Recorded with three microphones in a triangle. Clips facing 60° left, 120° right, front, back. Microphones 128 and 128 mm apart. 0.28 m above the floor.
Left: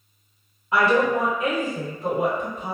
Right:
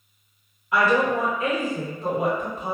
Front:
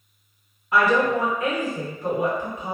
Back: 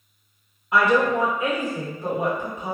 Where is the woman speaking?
100° left, 1.8 m; by 2.8 s 170° left, 1.6 m.